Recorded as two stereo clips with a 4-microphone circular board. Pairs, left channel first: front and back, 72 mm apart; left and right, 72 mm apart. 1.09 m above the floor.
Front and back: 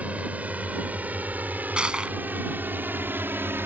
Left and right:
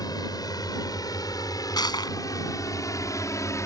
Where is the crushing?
100° left.